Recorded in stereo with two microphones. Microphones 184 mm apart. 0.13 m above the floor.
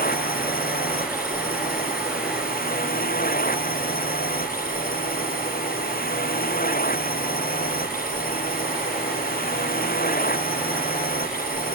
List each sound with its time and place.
0.0 s a drone: 55° left (ahead or behind)